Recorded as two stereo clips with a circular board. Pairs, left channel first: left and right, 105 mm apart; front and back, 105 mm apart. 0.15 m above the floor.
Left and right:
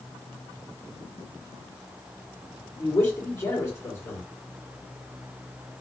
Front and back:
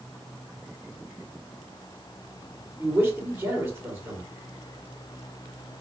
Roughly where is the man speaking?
Behind left.